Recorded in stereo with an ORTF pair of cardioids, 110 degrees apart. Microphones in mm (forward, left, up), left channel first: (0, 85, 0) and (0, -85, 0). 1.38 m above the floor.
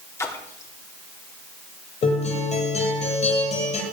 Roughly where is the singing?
I don't hear singing.